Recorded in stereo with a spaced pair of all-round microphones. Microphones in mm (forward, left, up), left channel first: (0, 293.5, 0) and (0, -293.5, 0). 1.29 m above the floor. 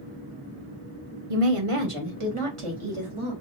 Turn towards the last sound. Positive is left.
turn(degrees=-55)  # may be behind; listen again after turning